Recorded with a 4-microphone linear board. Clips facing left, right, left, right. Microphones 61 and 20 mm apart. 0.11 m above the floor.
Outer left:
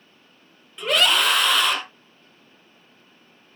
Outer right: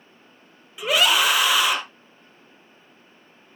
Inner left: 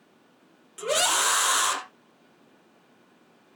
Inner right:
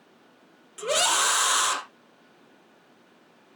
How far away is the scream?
About 2.5 m.